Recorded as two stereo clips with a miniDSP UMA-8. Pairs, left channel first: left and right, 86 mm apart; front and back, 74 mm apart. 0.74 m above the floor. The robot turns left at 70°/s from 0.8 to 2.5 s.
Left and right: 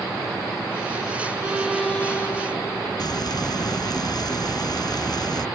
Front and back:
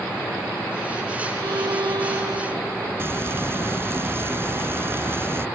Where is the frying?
125° left.